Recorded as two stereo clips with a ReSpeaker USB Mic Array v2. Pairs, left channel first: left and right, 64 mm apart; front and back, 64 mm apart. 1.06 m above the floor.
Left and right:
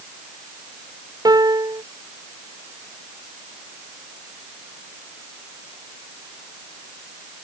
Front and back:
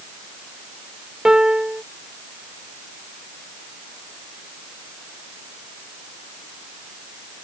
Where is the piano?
100° right.